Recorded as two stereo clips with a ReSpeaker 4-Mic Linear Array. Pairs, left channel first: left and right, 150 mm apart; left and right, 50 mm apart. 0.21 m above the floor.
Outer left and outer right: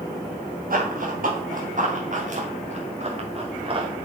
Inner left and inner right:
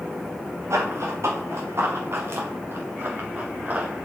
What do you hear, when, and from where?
0.7 s running footsteps: 70° right (ahead or behind), 4 m; by 4.0 s 35° right (ahead or behind), 3.5 m